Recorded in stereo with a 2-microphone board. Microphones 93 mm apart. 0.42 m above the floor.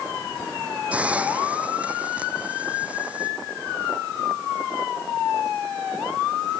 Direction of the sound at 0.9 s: 15° right (ahead or behind).